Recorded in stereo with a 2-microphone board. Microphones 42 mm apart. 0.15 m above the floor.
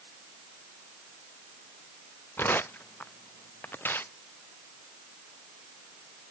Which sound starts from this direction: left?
Tearing paper, at 2.4 s.